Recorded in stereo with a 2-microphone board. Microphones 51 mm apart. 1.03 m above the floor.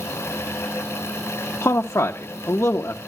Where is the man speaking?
55° left (ahead or behind), 0.6 m.